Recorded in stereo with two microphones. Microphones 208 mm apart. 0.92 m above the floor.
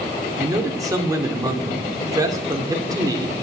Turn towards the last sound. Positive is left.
turn(degrees=-15)  # may be behind; listen again after turning